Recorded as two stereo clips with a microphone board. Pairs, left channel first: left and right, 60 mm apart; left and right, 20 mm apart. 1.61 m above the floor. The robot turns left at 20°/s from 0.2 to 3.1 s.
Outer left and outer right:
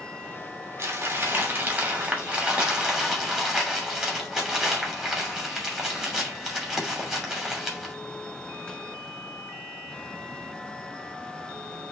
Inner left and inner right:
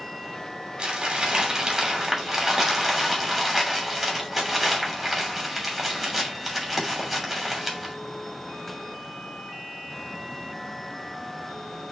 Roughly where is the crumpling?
Behind right.